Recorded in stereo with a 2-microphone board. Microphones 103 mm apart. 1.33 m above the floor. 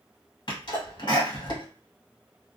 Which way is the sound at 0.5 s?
55° left (ahead or behind).